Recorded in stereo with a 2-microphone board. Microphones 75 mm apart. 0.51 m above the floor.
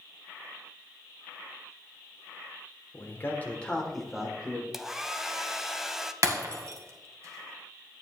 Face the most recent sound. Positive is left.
turn(degrees=-45)  # may be behind; listen again after turning